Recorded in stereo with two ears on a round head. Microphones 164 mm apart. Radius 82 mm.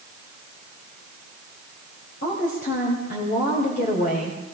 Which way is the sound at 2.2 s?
50° left (ahead or behind).